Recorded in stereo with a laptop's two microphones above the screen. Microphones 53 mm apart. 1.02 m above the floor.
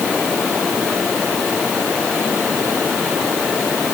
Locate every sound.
Only background noise.